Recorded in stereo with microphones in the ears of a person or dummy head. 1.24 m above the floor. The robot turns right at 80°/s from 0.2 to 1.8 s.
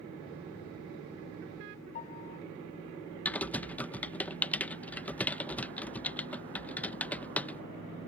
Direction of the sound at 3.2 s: 5° left (ahead or behind).